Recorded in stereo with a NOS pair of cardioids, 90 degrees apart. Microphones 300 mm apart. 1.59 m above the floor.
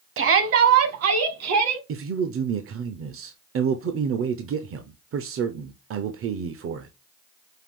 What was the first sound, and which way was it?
A shout, 45° right.